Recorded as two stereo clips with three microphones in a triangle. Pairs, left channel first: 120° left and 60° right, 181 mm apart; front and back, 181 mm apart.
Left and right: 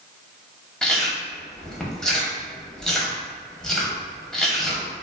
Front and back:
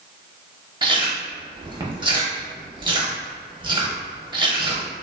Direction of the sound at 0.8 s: 155° right.